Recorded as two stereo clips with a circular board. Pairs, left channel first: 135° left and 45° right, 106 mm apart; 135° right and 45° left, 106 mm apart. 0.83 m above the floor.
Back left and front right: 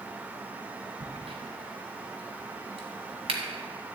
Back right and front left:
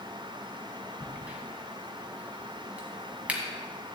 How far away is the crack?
About 1.5 m.